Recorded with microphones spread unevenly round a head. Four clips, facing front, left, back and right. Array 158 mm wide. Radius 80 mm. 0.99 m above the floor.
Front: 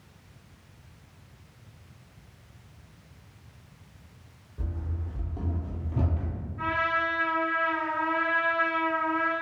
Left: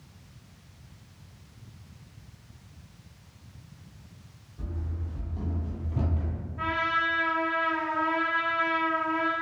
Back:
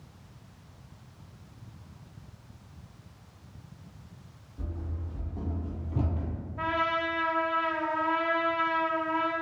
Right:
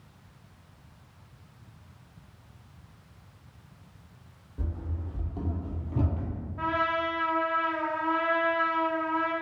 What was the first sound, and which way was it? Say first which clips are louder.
Running footsteps: right 1 dB, front 1 dB; 65° right.